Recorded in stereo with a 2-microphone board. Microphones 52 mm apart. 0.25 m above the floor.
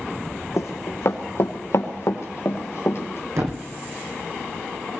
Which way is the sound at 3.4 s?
70° right (ahead or behind).